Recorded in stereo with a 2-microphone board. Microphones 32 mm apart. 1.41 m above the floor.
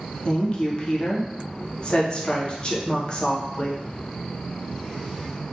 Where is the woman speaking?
30° left (ahead or behind), 0.6 m.